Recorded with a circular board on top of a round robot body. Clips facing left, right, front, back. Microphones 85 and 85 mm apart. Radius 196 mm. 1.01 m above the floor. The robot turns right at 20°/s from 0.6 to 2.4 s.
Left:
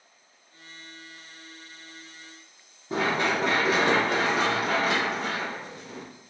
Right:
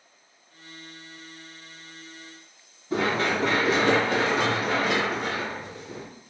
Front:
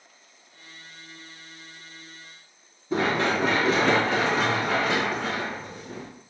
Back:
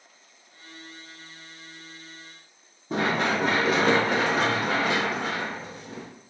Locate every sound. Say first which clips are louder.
2.9 s running footsteps: right 1 dB, front 1 dB; 160° left, 1.5 m; by 6.0 s 50° right, 1.1 m